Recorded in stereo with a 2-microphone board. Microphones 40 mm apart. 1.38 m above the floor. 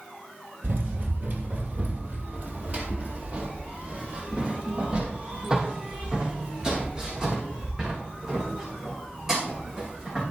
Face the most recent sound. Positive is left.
turn(degrees=-15)  # may be behind; listen again after turning